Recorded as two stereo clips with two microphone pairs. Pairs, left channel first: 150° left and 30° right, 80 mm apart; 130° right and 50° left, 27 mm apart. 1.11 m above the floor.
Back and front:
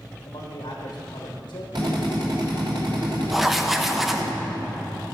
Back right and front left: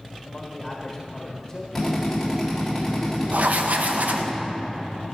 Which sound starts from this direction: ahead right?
A drill, at 1.8 s.